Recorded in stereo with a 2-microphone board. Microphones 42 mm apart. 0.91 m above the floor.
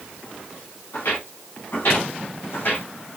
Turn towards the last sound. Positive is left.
turn(degrees=55)  # may be behind; listen again after turning